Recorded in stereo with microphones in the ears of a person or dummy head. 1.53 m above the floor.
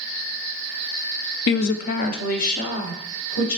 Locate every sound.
1.5 s a woman speaking: 65° left (ahead or behind), 0.5 m; by 3.6 s 50° left (ahead or behind), 2.5 m